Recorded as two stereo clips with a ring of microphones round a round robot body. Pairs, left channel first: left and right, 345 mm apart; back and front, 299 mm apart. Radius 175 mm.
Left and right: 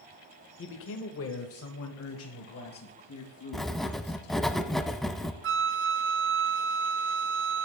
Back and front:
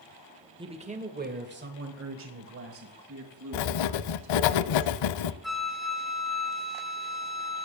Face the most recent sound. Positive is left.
turn(degrees=-90)